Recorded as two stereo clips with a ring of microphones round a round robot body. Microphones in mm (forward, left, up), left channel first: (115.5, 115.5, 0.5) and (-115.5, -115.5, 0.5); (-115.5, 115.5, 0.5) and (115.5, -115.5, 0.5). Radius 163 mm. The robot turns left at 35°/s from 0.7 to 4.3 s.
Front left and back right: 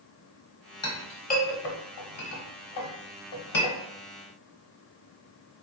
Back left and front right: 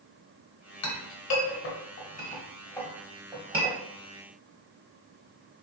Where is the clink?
120° left, 1.0 m; by 3.8 s 20° left, 1.0 m.